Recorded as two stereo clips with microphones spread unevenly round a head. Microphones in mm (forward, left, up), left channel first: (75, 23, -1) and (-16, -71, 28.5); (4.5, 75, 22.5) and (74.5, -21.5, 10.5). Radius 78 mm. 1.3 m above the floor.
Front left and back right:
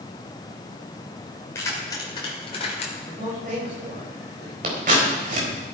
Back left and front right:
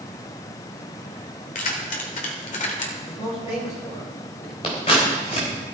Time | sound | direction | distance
1.6 | keys jangling | 125° left | 3 m
3.1 | a man speaking | straight behind | 5.5 m
4.6 | scissors | 175° right | 4 m